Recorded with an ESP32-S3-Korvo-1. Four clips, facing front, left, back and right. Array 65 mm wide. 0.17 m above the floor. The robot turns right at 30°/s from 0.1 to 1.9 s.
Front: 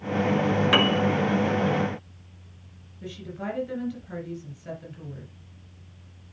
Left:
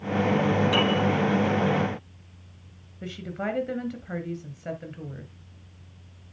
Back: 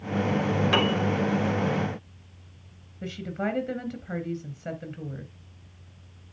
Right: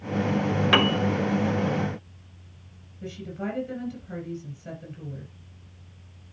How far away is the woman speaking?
About 2.5 m.